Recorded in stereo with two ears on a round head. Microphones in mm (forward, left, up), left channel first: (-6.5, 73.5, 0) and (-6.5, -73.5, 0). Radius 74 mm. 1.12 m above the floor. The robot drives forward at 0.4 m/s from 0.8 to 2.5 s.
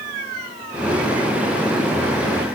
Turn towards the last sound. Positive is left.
No sound to turn to.